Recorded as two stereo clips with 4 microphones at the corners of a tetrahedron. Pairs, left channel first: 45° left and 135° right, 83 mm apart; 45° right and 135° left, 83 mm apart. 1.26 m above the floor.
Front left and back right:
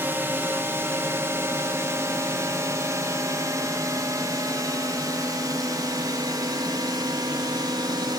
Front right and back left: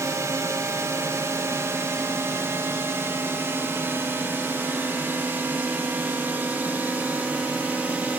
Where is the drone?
170° left; by 8.2 s 155° right.